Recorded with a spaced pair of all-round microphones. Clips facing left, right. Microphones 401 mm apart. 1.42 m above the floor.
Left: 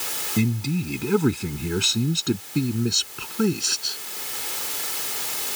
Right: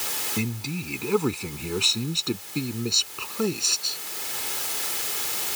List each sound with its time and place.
0.4 s a man speaking: 30° left (ahead or behind)